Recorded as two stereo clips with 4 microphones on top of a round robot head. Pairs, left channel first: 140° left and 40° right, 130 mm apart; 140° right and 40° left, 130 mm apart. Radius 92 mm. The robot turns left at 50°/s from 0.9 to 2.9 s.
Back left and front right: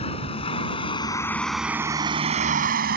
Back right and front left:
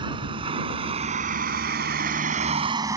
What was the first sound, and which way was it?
A vehicle, 95° left.